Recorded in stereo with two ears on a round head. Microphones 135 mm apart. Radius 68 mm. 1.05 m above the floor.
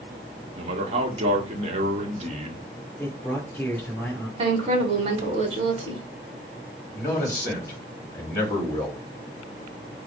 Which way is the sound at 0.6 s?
40° right (ahead or behind).